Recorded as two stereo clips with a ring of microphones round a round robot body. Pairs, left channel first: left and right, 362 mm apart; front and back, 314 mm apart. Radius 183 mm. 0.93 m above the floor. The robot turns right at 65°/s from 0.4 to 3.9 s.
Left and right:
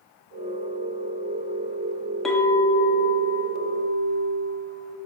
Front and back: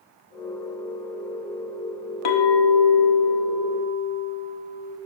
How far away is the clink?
About 0.8 m.